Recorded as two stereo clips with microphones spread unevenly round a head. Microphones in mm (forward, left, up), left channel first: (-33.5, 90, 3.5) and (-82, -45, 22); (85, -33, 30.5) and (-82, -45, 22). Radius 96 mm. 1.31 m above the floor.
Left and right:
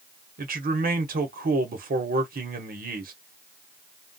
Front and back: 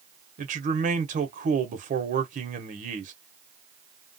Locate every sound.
0.4 s a man speaking: 130° right, 0.9 m